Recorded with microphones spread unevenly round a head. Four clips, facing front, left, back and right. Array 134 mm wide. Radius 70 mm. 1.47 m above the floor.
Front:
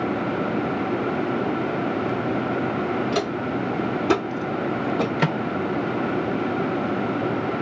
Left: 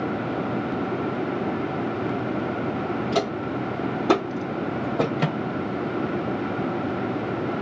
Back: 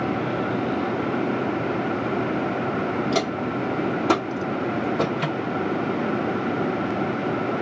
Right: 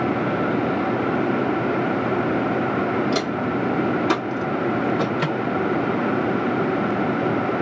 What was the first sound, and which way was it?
Footsteps, 140° left.